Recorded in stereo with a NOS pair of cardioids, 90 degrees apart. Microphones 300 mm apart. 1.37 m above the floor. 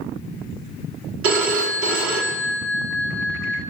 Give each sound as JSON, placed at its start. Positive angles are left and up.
{"t": 1.2, "sound": "a phone ringing", "azimuth_deg": -50, "distance_m": 1.9}